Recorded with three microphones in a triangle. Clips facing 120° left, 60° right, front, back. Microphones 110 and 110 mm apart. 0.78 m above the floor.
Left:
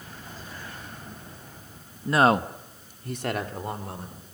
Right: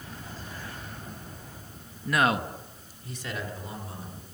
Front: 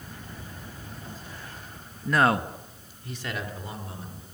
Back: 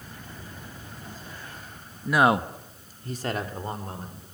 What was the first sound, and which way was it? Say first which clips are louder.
A man speaking: left 5 dB, back 2 dB; 100° left.